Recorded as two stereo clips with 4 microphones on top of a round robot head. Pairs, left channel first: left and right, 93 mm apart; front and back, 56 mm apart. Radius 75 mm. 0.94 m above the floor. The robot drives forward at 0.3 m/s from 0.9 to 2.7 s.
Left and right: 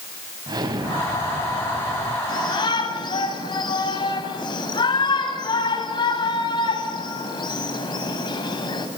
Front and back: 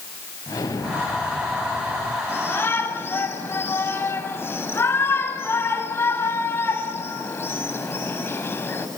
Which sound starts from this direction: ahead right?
An explosion, at 0.5 s.